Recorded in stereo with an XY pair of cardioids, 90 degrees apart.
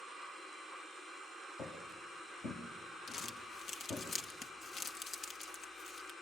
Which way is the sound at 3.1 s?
60° left.